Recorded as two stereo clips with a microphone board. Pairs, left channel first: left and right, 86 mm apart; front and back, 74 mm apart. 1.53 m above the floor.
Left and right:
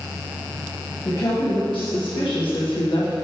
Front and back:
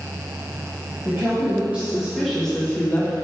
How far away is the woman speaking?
About 1.9 m.